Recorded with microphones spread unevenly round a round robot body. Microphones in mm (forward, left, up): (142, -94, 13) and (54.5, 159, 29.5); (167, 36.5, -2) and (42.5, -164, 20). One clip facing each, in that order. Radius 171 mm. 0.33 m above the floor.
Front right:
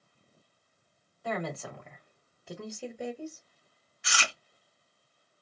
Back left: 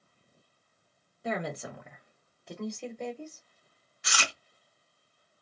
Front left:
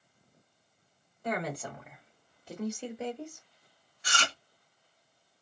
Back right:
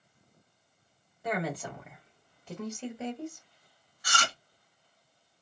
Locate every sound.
1.2 s a woman speaking: 150° left, 0.9 m; by 3.4 s 5° right, 1.2 m
4.0 s chewing: 100° left, 0.7 m